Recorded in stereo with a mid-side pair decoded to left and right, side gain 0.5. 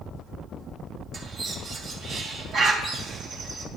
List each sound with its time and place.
1.1 s a bird: 60° right, 2.5 m